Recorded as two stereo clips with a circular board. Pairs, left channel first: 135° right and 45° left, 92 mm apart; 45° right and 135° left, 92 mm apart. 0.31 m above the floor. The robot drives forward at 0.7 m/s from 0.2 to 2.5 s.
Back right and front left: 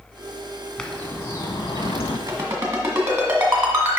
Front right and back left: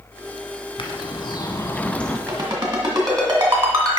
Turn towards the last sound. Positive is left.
turn(degrees=105)